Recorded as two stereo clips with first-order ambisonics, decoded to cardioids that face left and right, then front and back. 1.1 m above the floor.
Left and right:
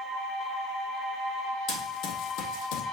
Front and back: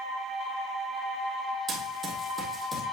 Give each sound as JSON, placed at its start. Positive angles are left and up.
{"t": 1.7, "sound": "running footsteps", "azimuth_deg": 120, "distance_m": 2.0}